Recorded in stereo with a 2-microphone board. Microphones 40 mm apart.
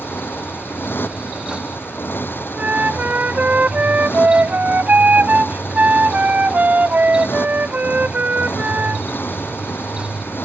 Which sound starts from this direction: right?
A flute, at 2.5 s.